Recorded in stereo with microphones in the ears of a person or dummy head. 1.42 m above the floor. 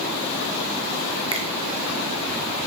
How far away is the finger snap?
About 0.7 m.